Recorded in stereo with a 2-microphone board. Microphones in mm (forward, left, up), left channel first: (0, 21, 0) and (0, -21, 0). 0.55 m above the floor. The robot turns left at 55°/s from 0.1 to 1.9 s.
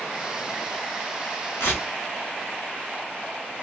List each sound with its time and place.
1.6 s tearing paper: 80° left, 1.1 m; by 1.9 s 65° left (ahead or behind), 1.1 m